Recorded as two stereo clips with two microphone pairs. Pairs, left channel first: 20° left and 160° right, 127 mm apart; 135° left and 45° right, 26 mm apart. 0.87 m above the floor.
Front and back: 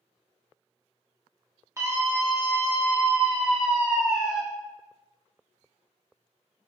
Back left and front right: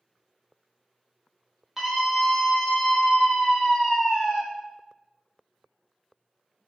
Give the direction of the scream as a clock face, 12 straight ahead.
4 o'clock.